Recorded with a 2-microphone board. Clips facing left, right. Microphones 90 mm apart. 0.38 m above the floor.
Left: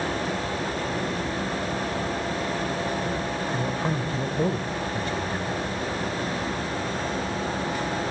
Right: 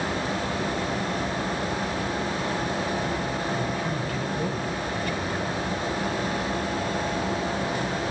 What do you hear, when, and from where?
3.5 s a man speaking: 30° left (ahead or behind), 1.7 m; by 5.7 s 20° left (ahead or behind), 1.9 m